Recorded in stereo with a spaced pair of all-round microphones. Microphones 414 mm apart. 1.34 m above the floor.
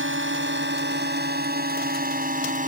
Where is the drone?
25° right (ahead or behind); by 2.7 s 20° right (ahead or behind).